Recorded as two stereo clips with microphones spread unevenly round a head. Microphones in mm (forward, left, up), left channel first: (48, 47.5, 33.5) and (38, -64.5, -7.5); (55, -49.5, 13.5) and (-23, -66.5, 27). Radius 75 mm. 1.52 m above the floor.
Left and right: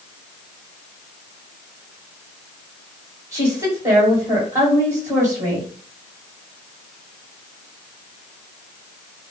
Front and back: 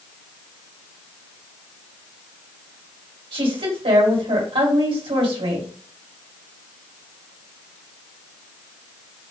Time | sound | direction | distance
3.3 | a woman speaking | 165° right | 2 m